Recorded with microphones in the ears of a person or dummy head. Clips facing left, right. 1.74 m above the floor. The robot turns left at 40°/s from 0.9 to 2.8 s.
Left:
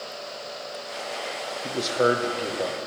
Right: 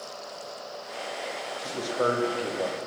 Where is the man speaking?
40° left, 1.1 m; by 2.9 s 5° right, 1.1 m.